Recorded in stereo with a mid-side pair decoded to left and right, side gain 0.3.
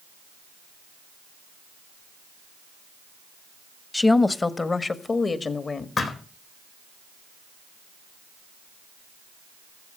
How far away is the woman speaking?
About 1.1 m.